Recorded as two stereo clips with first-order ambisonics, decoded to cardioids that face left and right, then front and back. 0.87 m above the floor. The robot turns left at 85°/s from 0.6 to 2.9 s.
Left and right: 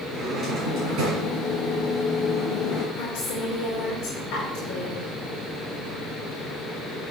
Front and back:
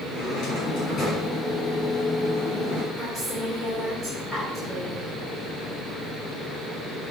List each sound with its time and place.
0.1 s a drawer: 25° right, 5.5 m; by 2.8 s 145° left, 5.5 m
2.9 s a woman speaking: 95° left, 3 m